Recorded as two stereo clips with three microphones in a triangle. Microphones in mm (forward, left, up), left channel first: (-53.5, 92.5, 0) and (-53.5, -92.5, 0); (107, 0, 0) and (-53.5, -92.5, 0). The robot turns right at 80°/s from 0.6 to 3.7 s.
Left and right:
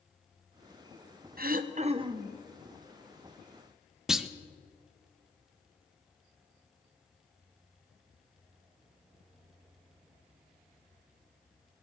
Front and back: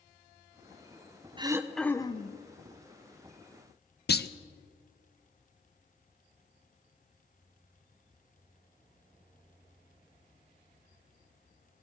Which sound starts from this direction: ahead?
A clunk, at 4.1 s.